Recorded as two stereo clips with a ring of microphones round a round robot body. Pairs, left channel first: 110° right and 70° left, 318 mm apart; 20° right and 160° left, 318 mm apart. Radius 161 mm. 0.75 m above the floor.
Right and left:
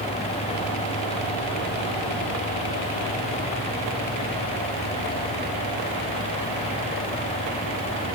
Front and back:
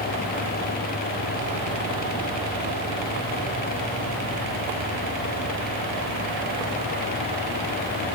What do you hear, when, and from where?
Only background noise.